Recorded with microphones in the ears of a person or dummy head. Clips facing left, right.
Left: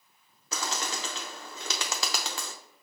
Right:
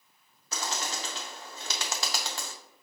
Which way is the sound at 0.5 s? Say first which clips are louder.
Left 1 dB; 65° left (ahead or behind).